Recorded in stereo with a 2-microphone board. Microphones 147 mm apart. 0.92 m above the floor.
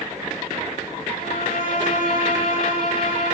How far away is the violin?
About 8 m.